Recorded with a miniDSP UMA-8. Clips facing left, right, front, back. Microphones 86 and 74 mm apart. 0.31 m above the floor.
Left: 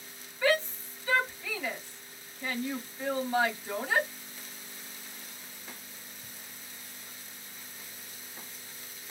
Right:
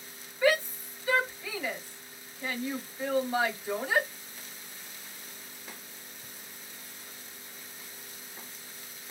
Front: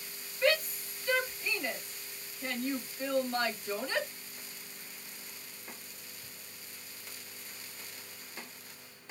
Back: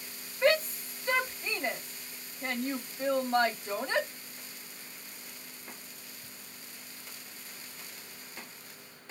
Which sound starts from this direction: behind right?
A shout, at 0.4 s.